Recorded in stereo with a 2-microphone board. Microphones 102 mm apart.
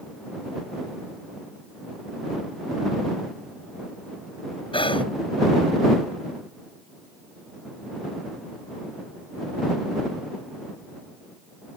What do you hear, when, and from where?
4.7 s whispering: 60° left (ahead or behind)